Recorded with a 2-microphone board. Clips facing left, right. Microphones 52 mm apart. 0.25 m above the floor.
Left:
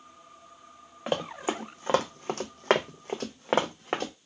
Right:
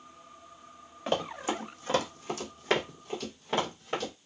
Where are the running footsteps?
15° left (ahead or behind), 1.0 m; by 4.1 s 65° left (ahead or behind), 1.1 m.